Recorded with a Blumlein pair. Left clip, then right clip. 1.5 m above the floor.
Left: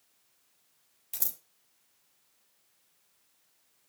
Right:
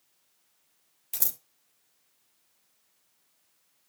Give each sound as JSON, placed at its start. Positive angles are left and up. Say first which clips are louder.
{"t": 1.1, "sound": "scissors", "louder": "right 4 dB", "azimuth_deg": -15, "distance_m": 0.7}